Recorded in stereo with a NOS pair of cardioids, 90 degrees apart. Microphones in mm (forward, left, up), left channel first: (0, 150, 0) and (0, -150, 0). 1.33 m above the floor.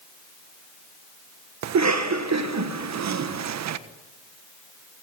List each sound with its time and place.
1.6 s a cough: 65° right, 1.4 m